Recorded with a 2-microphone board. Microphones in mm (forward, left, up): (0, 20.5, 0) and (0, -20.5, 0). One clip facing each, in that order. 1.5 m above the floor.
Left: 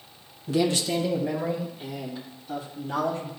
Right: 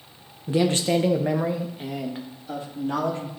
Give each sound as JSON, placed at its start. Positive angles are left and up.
{"t": 0.5, "sound": "a man speaking", "side_deg": -20, "distance_m": 0.7}